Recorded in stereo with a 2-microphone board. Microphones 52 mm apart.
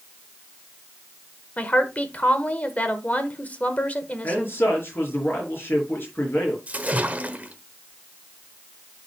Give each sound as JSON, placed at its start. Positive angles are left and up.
{"t": 1.6, "sound": "a woman speaking", "side_deg": 30, "distance_m": 1.3}
{"t": 4.2, "sound": "a man speaking", "side_deg": 45, "distance_m": 5.0}
{"t": 6.7, "sound": "a splash", "side_deg": -30, "distance_m": 1.1}